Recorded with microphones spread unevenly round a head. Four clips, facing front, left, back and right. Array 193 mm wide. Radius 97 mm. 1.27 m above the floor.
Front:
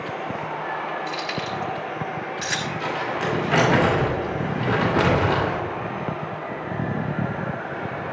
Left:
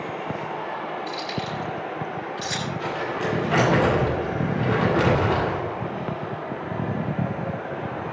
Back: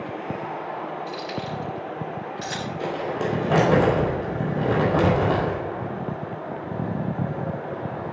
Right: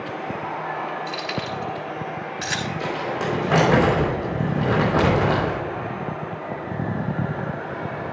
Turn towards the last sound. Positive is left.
turn(degrees=-145)